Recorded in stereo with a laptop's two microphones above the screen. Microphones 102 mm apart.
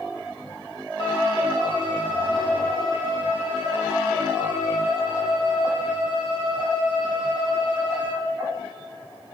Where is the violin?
50° left (ahead or behind), 2.5 m.